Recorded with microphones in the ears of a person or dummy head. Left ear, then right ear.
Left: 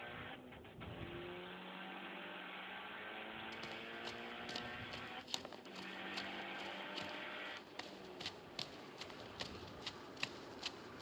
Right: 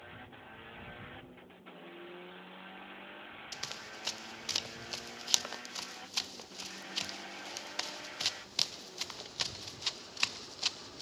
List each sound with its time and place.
3.5 s running footsteps: 60° right (ahead or behind); by 11.0 s 45° right (ahead or behind)